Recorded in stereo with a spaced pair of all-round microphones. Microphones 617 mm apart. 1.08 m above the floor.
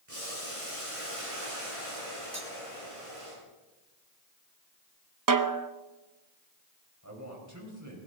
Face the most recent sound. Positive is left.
turn(degrees=-25)  # may be behind; listen again after turning